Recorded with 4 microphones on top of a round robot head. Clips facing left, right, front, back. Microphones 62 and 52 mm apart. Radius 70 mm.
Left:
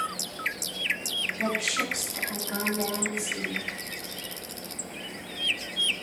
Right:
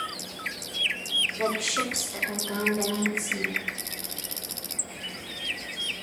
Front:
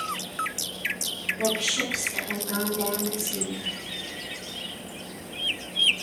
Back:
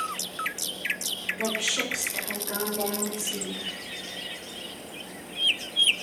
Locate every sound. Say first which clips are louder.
1.4 s a woman speaking: even, front 2 dB; 95° right, 2 m; by 3.6 s 135° right, 3 m